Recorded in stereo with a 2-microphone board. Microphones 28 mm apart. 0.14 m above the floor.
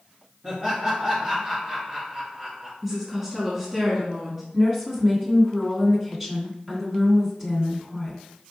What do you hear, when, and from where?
0.4 s laughter: 35° right (ahead or behind), 1.7 m
2.8 s a woman speaking: 15° right (ahead or behind), 1.4 m
4.5 s a woman speaking: 5° right (ahead or behind), 1.4 m